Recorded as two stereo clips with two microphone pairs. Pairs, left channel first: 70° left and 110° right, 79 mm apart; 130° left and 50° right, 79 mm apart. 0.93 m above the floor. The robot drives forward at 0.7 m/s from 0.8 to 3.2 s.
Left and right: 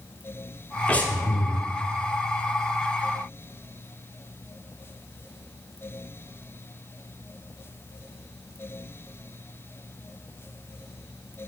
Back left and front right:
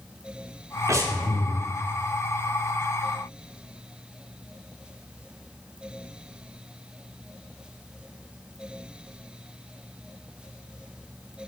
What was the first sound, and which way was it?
Breathing, 5° right.